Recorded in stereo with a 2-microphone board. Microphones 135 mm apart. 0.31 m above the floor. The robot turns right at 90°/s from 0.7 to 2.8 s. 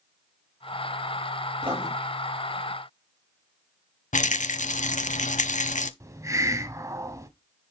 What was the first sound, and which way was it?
Writing, 50° right (ahead or behind).